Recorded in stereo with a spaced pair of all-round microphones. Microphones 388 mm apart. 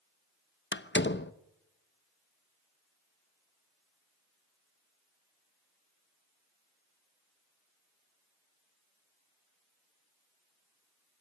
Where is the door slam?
25° left (ahead or behind), 0.8 m.